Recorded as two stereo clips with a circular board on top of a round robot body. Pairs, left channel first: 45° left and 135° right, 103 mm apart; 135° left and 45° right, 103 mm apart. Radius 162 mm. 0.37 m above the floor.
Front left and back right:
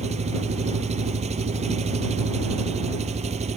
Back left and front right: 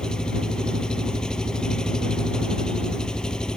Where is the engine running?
140° right.